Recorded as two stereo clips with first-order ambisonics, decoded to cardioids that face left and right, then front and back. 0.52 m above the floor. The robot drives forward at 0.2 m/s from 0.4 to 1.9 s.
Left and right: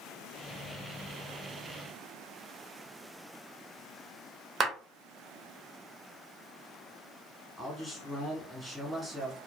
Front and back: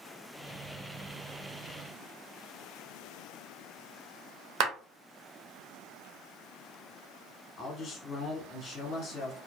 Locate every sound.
4.6 s a clap: 155° right, 1.0 m
7.6 s a man speaking: 5° left, 1.1 m